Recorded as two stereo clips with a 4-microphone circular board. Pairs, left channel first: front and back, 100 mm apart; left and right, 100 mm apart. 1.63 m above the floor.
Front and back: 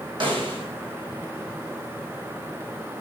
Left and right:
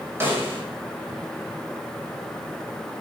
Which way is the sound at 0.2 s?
155° right.